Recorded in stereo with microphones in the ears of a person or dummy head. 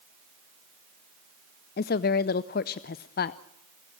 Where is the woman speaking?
40° left (ahead or behind), 0.5 m.